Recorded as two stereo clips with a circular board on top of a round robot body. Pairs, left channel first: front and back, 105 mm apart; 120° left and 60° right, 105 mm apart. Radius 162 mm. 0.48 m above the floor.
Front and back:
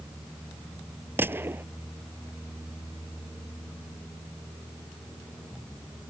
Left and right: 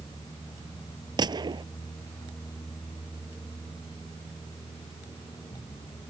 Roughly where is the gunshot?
Right.